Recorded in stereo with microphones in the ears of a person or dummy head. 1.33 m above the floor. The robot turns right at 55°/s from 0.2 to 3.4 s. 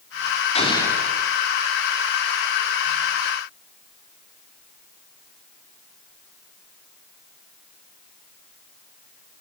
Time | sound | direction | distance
0.6 | an explosion | 145° left | 3.5 m